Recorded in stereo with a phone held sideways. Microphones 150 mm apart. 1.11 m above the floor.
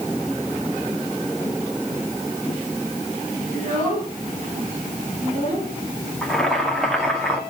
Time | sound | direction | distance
3.5 | a child speaking | 45° right (ahead or behind) | 9 m
6.2 | boiling | 5° left (ahead or behind) | 2 m